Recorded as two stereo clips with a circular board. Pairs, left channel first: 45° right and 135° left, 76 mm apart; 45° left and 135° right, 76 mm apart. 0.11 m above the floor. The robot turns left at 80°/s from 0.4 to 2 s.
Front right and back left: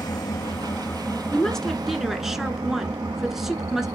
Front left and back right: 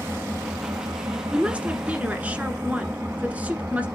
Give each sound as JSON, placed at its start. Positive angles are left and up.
{"t": 0.0, "sound": "an engine running", "azimuth_deg": -75, "distance_m": 1.6}
{"t": 1.3, "sound": "a woman speaking", "azimuth_deg": -90, "distance_m": 1.3}